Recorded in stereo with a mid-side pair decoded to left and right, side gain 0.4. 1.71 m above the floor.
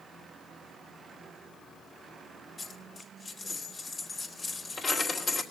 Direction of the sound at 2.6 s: 45° left.